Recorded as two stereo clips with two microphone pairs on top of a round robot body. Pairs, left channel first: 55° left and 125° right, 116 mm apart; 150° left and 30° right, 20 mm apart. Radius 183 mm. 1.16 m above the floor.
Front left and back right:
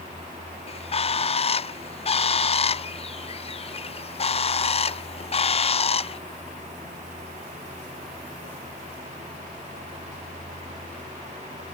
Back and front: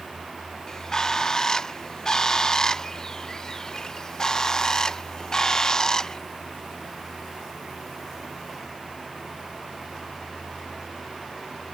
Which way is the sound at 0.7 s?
90° left.